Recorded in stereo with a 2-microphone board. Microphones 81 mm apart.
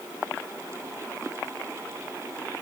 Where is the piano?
I don't hear a piano.